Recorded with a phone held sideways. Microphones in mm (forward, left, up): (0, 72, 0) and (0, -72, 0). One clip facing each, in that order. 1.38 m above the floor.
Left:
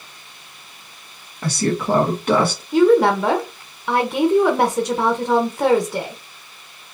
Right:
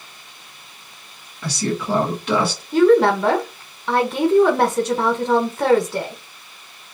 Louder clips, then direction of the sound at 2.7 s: Even; 5° left (ahead or behind).